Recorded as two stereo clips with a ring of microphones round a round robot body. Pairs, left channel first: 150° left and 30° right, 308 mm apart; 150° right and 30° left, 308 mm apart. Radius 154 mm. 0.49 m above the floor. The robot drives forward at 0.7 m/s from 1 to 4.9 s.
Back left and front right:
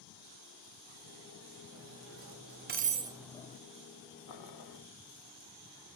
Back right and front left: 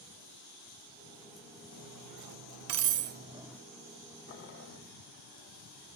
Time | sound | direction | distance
1.7 | cutlery clinking | 10° left | 1.3 m
4.3 | boiling | 160° left | 0.9 m